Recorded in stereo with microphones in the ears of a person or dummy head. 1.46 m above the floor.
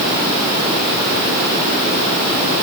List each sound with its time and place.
Only background noise.